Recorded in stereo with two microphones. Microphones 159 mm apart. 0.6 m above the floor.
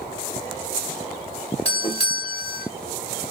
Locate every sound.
1.6 s a doorbell: 35° left (ahead or behind), 1.3 m